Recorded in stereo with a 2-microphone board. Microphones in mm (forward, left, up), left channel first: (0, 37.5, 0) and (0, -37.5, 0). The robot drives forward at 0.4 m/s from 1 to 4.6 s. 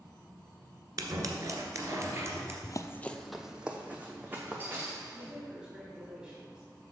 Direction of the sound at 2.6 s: 60° left (ahead or behind).